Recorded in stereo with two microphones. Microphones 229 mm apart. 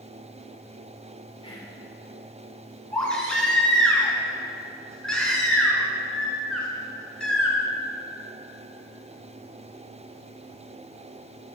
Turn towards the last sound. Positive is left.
turn(degrees=5)  # may be behind; listen again after turning